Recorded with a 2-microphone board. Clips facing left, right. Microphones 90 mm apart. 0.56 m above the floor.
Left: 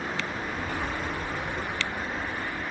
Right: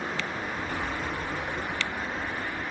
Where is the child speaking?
75° left (ahead or behind), 3 m; by 2.6 s 80° left, 4.5 m.